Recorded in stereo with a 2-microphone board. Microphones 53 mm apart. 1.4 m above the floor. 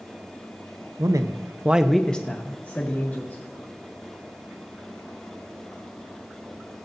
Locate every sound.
1.0 s a man speaking: 85° right, 0.9 m; by 3.4 s 40° left (ahead or behind), 2.5 m